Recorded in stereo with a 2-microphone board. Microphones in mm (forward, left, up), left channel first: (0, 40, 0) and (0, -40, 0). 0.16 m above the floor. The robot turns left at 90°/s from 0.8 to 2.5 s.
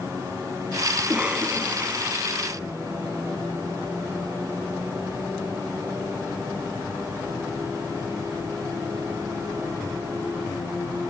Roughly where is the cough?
Centre.